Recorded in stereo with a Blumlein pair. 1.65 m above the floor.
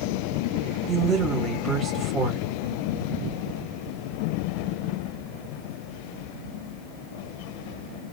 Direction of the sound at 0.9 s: 5° right.